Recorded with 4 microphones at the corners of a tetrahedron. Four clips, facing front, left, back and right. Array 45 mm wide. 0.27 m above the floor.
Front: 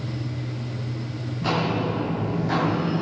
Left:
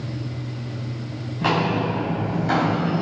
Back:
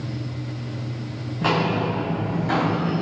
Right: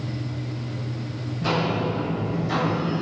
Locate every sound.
1.4 s footsteps: 130° left, 1.3 m; by 3.0 s 95° left, 0.7 m